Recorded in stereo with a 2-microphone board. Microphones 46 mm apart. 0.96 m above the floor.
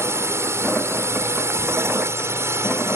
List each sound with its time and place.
0.0 s a drone: 70° right (ahead or behind)